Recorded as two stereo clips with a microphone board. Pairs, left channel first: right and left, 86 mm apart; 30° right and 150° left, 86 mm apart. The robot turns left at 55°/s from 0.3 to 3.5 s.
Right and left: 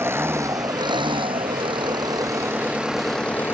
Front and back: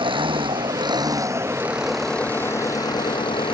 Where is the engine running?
150° left; by 3.5 s 25° right.